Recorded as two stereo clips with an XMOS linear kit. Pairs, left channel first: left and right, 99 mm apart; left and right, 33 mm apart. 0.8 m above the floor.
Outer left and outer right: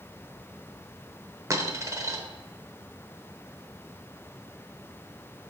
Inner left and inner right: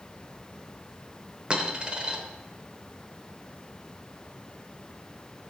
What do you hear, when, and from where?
1.5 s a dropped coin: 35° right (ahead or behind), 0.7 m